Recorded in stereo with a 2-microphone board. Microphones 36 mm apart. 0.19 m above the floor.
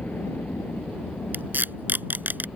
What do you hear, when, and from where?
0.0 s a helicopter: 60° left (ahead or behind); by 2.6 s 65° left (ahead or behind)
1.3 s tape being pulled: 60° right (ahead or behind)